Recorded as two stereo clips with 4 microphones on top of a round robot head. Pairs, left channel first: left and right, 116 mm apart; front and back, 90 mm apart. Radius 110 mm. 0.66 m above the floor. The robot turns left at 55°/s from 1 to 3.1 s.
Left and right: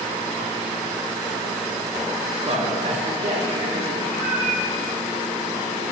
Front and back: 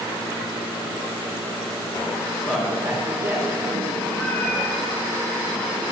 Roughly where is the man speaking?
Right.